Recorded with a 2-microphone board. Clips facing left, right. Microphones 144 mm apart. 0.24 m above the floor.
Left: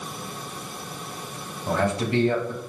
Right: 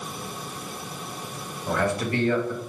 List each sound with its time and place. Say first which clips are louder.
1.7 s a man speaking: left 1 dB; 25° left (ahead or behind), 1.0 m